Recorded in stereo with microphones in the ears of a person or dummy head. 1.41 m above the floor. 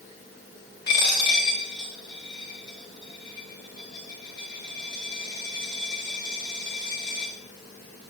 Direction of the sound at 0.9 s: 25° left (ahead or behind).